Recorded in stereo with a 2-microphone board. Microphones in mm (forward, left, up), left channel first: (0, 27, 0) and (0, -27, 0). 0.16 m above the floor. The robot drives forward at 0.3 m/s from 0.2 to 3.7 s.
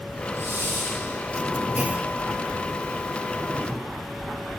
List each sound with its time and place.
0.3 s a hiss: 45° right (ahead or behind), 3.5 m
1.8 s a clunk: 25° right (ahead or behind), 0.7 m; by 2.1 s 30° right (ahead or behind), 0.6 m